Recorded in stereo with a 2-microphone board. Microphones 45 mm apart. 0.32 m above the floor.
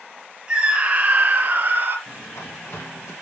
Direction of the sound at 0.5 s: 20° right (ahead or behind).